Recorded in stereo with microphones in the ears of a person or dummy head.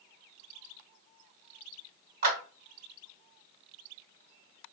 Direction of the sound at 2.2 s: 50° right (ahead or behind).